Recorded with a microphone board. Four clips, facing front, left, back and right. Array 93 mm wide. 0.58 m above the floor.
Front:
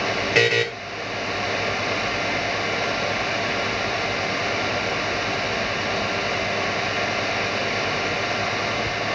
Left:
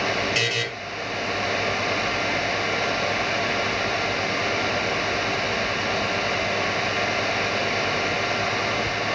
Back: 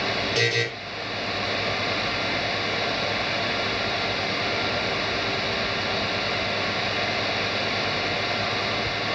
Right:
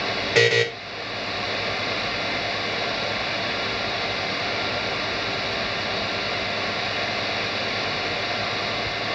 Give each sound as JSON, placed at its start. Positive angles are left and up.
{"t": 0.3, "sound": "a buzzer", "azimuth_deg": -35, "distance_m": 3.0}